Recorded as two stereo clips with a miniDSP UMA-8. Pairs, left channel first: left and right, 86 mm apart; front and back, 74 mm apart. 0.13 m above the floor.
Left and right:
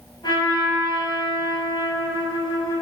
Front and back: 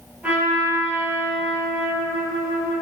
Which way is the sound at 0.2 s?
110° left.